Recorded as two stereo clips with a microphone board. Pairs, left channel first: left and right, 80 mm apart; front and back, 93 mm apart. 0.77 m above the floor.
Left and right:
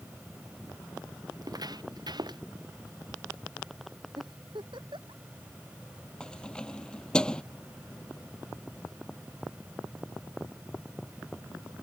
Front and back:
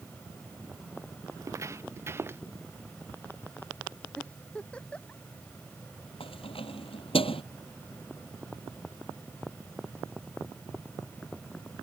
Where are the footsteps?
125° right; by 2.4 s 115° right.